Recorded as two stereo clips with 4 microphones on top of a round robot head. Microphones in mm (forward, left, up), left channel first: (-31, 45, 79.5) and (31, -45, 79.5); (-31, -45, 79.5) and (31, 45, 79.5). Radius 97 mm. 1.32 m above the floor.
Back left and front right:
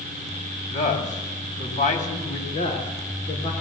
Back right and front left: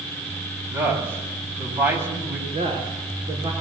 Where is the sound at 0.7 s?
130° left, 8 m.